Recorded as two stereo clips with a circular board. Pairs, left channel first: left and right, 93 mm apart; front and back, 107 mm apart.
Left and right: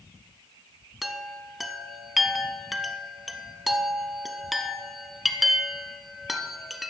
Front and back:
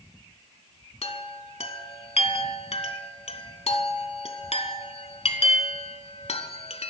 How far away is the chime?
About 0.8 m.